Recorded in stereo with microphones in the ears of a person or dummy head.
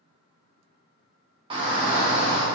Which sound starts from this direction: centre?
A shout, at 1.5 s.